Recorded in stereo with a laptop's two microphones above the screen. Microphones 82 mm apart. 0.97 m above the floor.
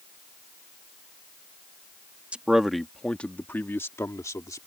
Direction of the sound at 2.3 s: 15° right (ahead or behind).